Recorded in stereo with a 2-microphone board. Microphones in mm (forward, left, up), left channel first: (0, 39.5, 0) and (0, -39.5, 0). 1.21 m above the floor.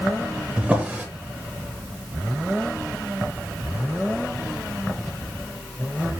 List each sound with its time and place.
0.6 s a drawer: 15° right (ahead or behind), 1.0 m